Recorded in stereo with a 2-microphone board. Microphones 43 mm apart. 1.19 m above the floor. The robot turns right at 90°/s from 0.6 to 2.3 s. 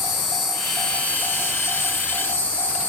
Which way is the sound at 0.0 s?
5° right.